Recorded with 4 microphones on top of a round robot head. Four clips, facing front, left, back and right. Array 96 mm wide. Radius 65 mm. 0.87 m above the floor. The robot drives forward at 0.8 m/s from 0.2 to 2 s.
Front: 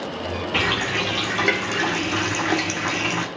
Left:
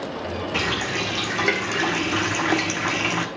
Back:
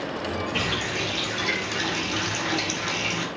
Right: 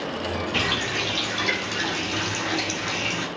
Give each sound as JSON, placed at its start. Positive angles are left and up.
{"t": 0.5, "sound": "a running tap", "azimuth_deg": 30, "distance_m": 2.5}